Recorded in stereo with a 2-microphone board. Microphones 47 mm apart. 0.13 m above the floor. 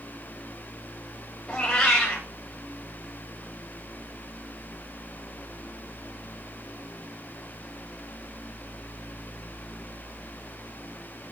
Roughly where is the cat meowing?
Left.